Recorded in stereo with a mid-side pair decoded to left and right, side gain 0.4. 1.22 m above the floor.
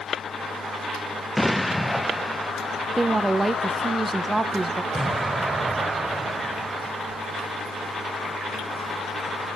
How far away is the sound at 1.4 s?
About 0.5 m.